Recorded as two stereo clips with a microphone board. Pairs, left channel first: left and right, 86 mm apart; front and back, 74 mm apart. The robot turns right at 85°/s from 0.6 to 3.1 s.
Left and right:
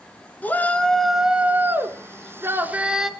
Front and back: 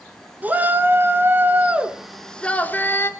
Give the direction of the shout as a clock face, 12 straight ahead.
7 o'clock.